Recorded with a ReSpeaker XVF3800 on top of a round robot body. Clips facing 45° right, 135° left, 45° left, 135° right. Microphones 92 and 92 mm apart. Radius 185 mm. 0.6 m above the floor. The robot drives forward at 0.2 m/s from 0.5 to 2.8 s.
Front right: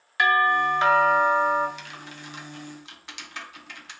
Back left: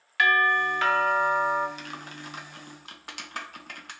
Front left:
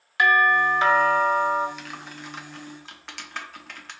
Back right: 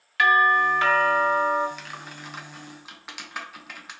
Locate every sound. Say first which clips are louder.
0.2 s a doorbell: front right 2 dB, even; straight ahead, 1.4 m; by 1.7 s 5° right, 1.3 m
1.8 s typing on a keyboard: back left 2 dB, front left 1 dB; 130° left, 0.8 m; by 3.9 s 145° left, 0.9 m